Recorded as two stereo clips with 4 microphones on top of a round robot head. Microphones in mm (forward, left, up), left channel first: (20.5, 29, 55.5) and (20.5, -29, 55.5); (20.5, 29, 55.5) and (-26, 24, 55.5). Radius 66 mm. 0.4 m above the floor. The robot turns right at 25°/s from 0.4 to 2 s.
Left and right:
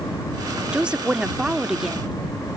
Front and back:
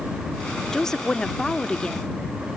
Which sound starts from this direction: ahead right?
A woman speaking, at 0.7 s.